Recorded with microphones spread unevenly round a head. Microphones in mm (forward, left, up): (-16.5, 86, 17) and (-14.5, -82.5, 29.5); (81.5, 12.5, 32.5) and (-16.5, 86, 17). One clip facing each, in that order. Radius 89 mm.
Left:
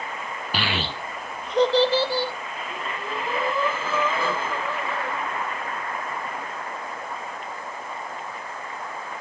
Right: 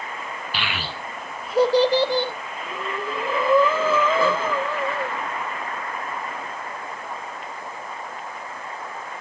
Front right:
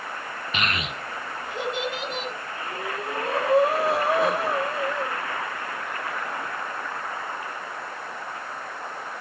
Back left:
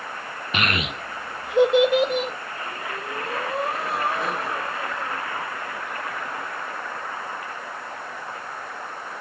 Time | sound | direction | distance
0.5 | a child speaking | 130° left | 0.6 m
2.6 | breathing | 85° right | 2 m